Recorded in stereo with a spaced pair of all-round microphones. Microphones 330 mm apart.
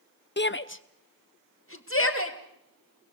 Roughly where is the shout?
Left.